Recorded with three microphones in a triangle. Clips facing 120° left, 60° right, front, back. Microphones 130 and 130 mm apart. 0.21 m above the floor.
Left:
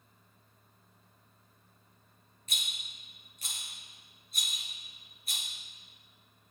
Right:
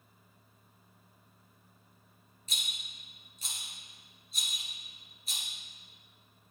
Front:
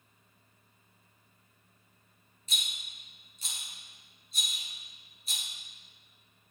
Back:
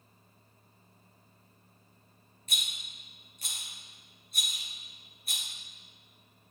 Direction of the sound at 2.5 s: 150° left.